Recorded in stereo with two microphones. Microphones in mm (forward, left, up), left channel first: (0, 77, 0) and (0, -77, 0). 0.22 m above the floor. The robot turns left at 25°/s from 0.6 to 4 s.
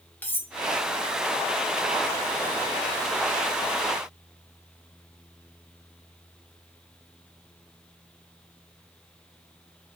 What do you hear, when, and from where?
0.2 s cutlery clinking: 15° left (ahead or behind), 0.6 m